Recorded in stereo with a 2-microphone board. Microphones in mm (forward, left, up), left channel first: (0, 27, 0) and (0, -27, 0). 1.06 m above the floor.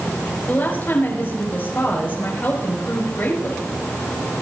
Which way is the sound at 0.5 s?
40° left (ahead or behind).